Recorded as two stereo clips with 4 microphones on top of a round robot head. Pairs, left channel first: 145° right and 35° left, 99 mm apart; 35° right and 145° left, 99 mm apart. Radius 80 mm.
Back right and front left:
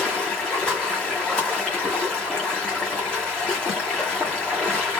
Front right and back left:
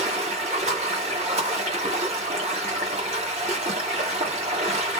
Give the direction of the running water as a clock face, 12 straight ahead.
8 o'clock.